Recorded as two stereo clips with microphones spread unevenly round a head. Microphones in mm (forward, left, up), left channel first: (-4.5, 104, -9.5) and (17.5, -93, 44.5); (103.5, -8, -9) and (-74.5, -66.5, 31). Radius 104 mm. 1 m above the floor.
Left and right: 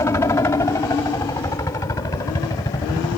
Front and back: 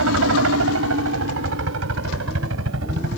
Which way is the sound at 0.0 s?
175° left.